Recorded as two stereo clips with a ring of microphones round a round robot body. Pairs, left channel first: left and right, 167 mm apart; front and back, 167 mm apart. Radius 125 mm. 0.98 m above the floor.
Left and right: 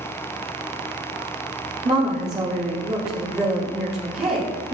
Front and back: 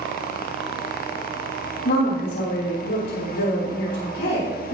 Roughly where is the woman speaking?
Ahead right.